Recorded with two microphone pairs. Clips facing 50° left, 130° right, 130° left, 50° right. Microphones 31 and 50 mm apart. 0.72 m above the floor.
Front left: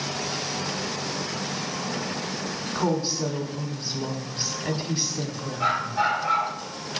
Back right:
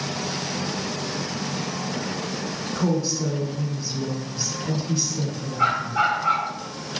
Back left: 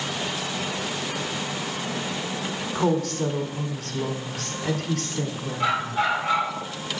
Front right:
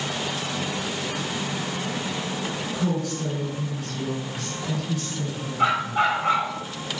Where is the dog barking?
95° right, 3 m.